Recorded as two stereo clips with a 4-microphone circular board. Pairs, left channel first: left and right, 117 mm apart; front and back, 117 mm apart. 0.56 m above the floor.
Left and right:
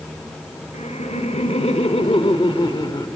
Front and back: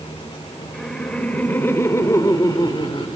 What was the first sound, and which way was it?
Laughter, 85° left.